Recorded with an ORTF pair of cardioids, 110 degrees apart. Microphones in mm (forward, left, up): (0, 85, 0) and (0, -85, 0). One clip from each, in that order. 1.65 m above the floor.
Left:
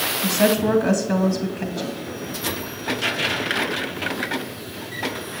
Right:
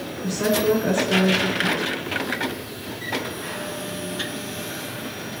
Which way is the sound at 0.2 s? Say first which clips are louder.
Even; 60° left.